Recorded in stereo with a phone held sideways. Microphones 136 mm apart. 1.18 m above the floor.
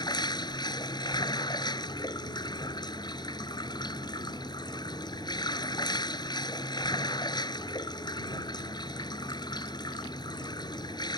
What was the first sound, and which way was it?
Running water, 30° left (ahead or behind).